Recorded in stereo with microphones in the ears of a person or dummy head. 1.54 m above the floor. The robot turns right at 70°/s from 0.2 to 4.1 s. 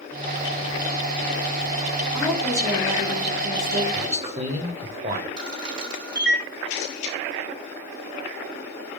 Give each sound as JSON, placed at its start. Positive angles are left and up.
{"t": 2.1, "sound": "a woman speaking", "azimuth_deg": 170, "distance_m": 4.0}
{"t": 3.9, "sound": "a man speaking", "side_deg": -30, "distance_m": 1.7}
{"t": 5.4, "sound": "a camera shutter", "side_deg": -70, "distance_m": 3.5}
{"t": 6.7, "sound": "a camera shutter", "side_deg": 65, "distance_m": 3.0}